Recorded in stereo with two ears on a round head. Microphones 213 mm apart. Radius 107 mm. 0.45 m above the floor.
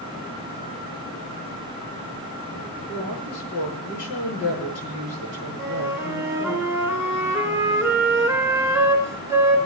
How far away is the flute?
About 3.5 m.